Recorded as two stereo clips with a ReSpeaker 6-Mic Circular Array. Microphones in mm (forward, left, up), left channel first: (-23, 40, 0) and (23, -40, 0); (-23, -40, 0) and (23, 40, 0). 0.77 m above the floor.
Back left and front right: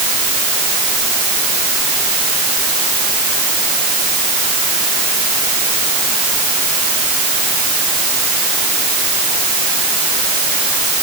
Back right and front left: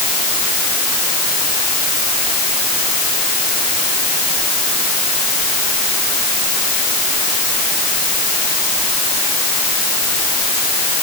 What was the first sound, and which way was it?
Only background noise.